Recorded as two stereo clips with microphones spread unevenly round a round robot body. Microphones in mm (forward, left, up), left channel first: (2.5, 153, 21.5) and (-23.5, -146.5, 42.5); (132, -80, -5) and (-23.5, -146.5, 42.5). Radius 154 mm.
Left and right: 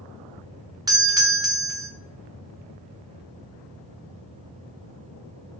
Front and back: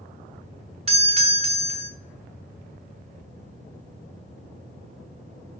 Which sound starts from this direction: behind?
A doorbell, at 0.9 s.